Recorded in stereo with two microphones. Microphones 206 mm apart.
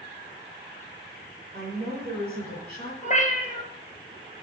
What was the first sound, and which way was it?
A woman speaking, 55° right (ahead or behind).